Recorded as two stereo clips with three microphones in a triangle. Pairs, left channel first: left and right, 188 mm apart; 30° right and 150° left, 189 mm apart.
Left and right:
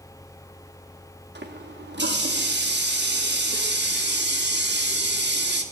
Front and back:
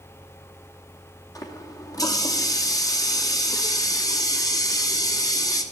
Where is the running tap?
100° right, 1.1 m.